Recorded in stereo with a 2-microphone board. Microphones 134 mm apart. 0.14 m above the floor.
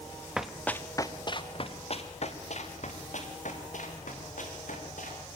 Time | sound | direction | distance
0.4 | running footsteps | 5° right (ahead or behind) | 1.4 m